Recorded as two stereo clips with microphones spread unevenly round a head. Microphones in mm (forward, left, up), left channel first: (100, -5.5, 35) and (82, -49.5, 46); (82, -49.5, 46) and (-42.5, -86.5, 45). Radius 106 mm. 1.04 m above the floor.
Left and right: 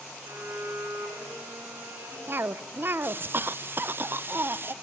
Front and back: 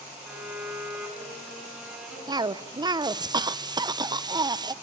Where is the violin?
80° right, 7.5 m.